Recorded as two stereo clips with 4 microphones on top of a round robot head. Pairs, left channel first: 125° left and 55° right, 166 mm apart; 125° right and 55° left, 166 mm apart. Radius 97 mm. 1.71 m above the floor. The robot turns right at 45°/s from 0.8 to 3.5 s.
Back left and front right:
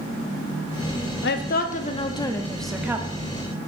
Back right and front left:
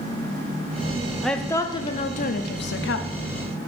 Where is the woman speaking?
150° left, 0.8 m; by 3.1 s 130° right, 0.8 m.